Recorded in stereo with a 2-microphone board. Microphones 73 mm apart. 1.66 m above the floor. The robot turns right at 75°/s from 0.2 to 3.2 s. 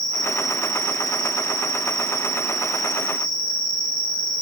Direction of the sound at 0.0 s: 175° left.